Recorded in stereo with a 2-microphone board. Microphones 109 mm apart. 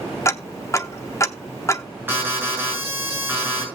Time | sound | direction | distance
0.2 | ticking | 30° left (ahead or behind) | 0.8 m
2.1 | an alarm | 20° right (ahead or behind) | 6 m